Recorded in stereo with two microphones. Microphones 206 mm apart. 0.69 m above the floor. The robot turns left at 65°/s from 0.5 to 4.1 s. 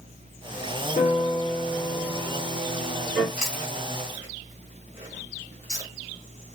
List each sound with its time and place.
1.0 s a piano: 55° left, 1.7 m; by 3.3 s 95° right, 1.7 m
3.4 s chewing: 5° right (ahead or behind), 3 m; by 5.9 s 40° left (ahead or behind), 3 m